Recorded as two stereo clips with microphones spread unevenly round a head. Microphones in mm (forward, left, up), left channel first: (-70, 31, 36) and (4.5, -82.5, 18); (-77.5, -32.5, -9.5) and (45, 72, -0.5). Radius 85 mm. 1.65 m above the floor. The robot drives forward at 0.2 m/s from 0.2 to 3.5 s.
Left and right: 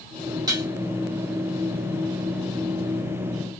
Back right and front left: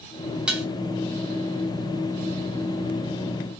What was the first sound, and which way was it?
Dishes clattering, 25° right.